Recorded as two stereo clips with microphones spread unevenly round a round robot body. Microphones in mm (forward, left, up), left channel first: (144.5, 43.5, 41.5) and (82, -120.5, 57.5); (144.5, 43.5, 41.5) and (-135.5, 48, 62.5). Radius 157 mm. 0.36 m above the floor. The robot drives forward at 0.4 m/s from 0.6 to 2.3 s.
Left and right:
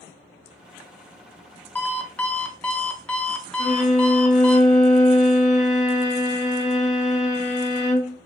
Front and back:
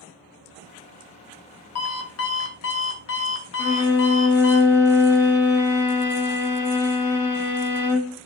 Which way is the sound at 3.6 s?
95° left.